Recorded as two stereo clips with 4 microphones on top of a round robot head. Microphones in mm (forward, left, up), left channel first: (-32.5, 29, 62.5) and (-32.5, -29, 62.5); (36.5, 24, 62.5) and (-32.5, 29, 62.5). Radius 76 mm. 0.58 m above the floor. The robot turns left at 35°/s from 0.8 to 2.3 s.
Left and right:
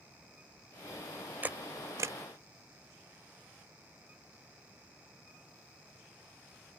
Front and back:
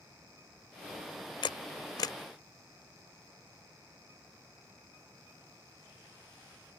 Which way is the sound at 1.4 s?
20° right.